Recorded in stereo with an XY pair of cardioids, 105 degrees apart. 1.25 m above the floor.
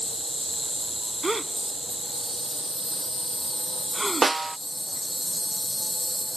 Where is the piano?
No piano in this recording.